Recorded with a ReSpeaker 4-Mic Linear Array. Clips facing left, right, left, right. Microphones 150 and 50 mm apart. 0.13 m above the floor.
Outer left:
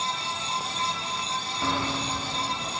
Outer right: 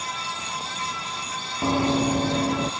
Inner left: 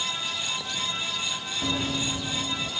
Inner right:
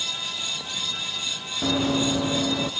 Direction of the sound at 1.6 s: 25° right (ahead or behind).